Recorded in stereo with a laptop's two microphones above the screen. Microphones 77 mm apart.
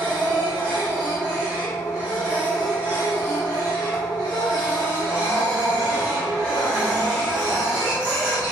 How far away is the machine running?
About 1.3 m.